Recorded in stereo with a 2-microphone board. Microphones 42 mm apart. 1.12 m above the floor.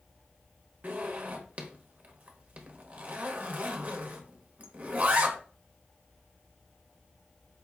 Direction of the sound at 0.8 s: 35° right (ahead or behind).